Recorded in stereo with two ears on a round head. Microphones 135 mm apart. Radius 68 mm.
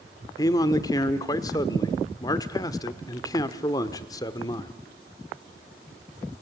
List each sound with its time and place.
0.4 s a man speaking: 25° left (ahead or behind), 1.2 m